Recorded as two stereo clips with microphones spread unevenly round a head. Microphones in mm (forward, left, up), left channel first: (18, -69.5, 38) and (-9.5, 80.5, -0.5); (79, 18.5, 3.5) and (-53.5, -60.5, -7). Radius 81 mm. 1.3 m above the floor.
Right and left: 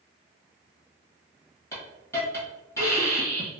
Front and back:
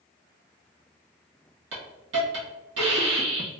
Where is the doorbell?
I don't hear a doorbell.